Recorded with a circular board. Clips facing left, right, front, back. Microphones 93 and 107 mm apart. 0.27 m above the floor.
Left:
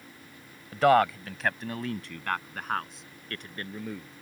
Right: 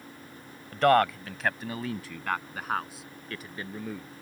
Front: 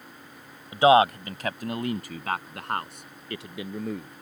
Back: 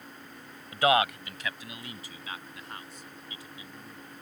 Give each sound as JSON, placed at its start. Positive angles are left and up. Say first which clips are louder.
{"t": 0.7, "sound": "a man speaking", "louder": "left 1 dB, front 7 dB", "azimuth_deg": 10}